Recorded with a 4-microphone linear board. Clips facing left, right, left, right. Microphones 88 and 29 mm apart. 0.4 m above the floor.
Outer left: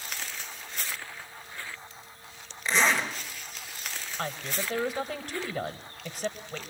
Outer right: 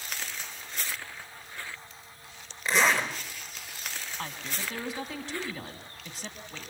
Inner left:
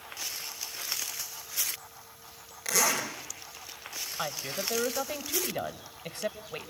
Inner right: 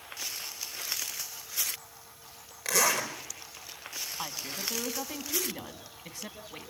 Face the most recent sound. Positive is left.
turn(degrees=55)  # may be behind; listen again after turning